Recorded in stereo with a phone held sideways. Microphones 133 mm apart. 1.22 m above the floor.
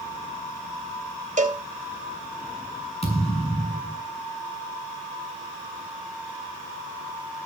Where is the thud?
50° left (ahead or behind), 4.5 m.